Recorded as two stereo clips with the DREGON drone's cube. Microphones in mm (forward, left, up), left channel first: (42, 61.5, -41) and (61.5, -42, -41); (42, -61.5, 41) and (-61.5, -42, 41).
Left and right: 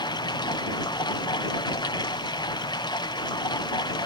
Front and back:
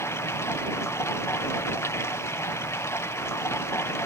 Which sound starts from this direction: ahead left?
Running water, at 0.0 s.